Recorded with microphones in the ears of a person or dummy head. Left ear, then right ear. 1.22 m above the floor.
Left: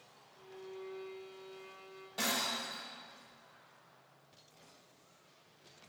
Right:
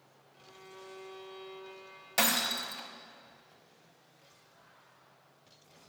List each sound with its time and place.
0.3 s a violin: centre (ahead or behind), 1.1 m
2.2 s breaking glass: 35° right (ahead or behind), 0.7 m